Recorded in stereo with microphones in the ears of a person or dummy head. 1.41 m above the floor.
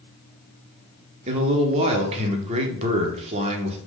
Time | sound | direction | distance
1.3 | a man speaking | 35° right (ahead or behind) | 1.0 m